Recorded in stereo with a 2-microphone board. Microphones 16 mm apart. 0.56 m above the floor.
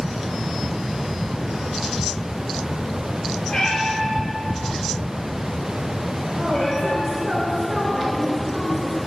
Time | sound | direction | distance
3.5 | a cat meowing | 55° left (ahead or behind) | 7 m
6.4 | a woman speaking | 5° right (ahead or behind) | 6.5 m